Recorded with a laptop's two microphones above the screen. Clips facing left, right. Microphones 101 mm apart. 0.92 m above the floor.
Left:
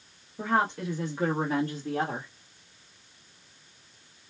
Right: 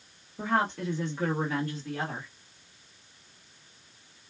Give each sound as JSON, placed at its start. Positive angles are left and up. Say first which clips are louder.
{"t": 0.4, "sound": "a woman speaking", "louder": "left 1 dB", "side_deg": 0, "distance_m": 1.4}